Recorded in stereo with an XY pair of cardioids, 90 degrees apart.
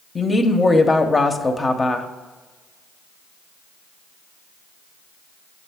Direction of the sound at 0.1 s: 30° left.